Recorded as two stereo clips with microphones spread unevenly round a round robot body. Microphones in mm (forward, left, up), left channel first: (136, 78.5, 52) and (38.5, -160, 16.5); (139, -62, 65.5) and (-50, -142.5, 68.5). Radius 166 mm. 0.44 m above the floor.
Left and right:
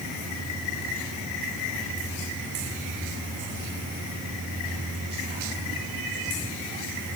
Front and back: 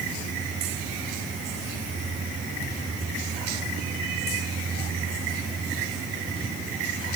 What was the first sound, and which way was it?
Only background noise.